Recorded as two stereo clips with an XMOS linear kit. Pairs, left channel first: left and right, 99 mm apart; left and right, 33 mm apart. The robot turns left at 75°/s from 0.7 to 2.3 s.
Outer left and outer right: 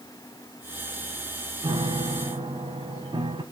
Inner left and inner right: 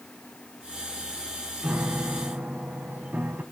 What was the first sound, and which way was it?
A piano, 55° right.